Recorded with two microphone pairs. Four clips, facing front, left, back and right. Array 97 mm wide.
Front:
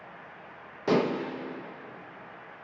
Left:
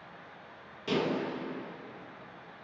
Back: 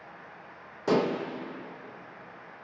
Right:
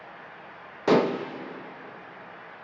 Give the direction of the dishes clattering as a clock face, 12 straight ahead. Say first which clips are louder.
Right 9 dB, even; 3 o'clock.